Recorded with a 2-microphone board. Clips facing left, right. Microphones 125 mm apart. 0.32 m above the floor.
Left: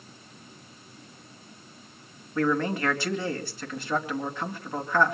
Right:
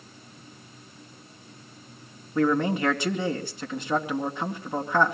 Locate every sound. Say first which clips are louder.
2.4 s a man speaking: right 3 dB; 20° right (ahead or behind), 2.5 m